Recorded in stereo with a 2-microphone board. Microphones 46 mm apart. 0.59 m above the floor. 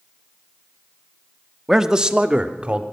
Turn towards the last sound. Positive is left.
turn(degrees=-30)  # may be behind; listen again after turning